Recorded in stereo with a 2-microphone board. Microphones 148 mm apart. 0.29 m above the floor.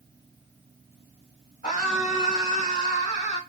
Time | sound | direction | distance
1.6 | a scream | 45° left (ahead or behind) | 1.6 m